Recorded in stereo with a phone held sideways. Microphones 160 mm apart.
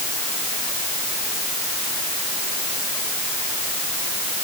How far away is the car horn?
No car horn in this recording.